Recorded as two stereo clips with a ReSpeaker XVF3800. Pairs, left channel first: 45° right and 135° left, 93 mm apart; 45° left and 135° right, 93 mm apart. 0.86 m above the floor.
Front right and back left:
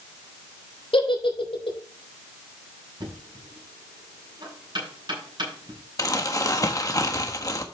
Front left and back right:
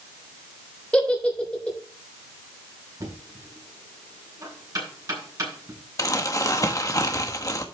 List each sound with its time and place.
0.9 s a giggle: 30° right, 3 m
3.0 s knocking: 175° left, 6 m
6.0 s crumpling: straight ahead, 1.3 m